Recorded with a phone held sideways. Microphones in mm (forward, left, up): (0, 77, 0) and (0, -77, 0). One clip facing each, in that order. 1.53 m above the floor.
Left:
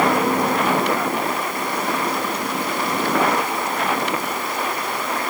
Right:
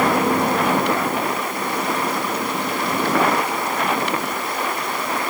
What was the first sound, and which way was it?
Only background noise.